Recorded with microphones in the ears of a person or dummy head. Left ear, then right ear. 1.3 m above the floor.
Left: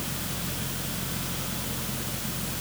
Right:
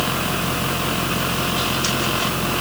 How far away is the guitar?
No guitar in this recording.